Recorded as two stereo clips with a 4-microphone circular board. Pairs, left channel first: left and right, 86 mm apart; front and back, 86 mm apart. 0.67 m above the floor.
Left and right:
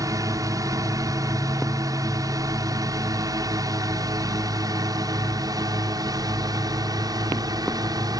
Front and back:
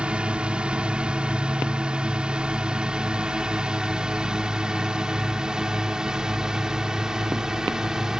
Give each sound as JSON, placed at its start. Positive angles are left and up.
{"t": 0.0, "sound": "a drone", "azimuth_deg": -110}